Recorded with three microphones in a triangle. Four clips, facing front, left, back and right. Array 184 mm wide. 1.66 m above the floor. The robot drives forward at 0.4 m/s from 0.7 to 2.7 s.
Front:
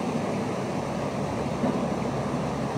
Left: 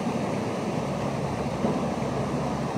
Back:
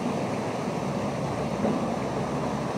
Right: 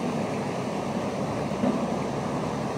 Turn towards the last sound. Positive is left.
turn(degrees=-100)